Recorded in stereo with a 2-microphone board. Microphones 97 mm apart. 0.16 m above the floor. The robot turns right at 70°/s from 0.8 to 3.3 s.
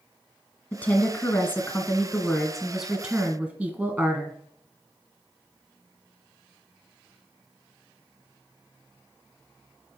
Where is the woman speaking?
15° left (ahead or behind), 1.5 m; by 4.4 s 15° right (ahead or behind), 1.5 m.